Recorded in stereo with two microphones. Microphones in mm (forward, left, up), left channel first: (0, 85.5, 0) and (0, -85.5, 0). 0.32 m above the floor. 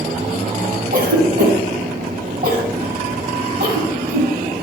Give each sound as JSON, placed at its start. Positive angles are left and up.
{"t": 0.9, "sound": "a cough", "side_deg": -65, "distance_m": 2.5}